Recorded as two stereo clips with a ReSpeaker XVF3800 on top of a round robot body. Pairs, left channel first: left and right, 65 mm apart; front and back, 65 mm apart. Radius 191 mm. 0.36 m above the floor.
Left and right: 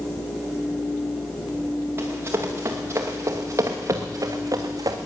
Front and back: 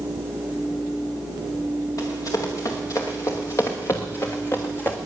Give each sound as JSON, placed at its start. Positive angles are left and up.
{"t": 2.0, "sound": "running footsteps", "azimuth_deg": -35, "distance_m": 4.0}